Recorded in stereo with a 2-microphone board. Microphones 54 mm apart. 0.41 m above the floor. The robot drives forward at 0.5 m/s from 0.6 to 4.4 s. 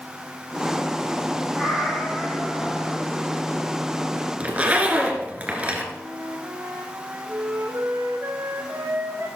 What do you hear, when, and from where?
1.5 s a cat meowing: centre (ahead or behind), 7.5 m
4.4 s a zipper: 25° right (ahead or behind), 2.5 m
5.9 s a flute: 55° right (ahead or behind), 4.5 m